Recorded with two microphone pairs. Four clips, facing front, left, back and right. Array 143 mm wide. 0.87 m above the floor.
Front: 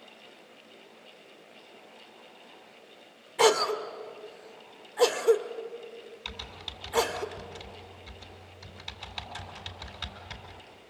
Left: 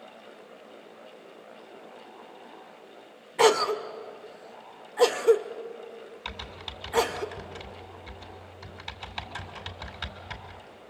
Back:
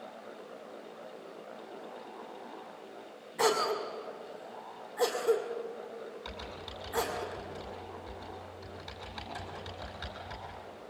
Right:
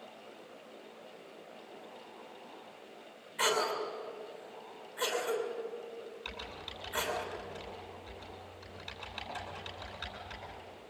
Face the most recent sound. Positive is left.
turn(degrees=85)